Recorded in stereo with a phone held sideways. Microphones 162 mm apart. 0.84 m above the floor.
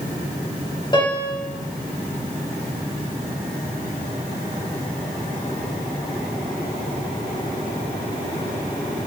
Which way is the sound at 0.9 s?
30° left (ahead or behind).